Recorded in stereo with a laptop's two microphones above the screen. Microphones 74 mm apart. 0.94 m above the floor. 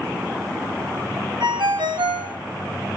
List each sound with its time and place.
1.4 s a ringtone: 75° right (ahead or behind), 2.5 m